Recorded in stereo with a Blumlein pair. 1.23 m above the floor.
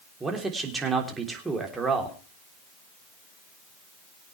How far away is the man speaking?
About 3.5 m.